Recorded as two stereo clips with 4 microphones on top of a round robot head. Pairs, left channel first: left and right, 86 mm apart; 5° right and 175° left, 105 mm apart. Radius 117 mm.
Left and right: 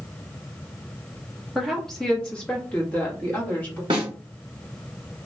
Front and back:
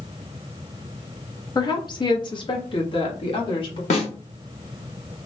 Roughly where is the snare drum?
Ahead right.